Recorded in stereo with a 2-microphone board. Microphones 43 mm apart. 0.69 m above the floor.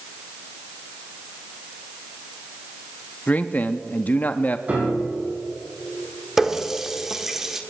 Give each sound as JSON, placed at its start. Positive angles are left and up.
{"t": 3.3, "sound": "a man speaking", "side_deg": 35, "distance_m": 0.6}
{"t": 4.7, "sound": "a piano", "side_deg": -35, "distance_m": 4.5}
{"t": 6.4, "sound": "a running tap", "side_deg": -10, "distance_m": 1.2}